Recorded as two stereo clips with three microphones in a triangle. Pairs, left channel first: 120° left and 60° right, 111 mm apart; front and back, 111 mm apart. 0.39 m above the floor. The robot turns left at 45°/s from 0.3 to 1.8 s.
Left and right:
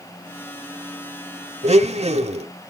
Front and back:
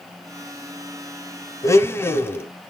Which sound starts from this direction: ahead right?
A blender, at 1.6 s.